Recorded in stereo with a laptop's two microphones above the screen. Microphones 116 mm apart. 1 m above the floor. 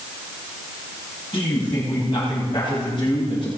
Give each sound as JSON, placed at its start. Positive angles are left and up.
{"t": 1.3, "sound": "a man speaking", "side_deg": 45, "distance_m": 8.0}